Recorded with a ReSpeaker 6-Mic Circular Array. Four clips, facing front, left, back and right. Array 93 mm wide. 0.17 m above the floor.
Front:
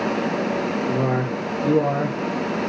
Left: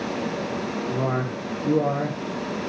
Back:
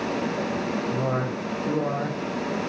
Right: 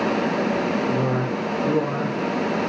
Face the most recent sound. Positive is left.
turn(degrees=5)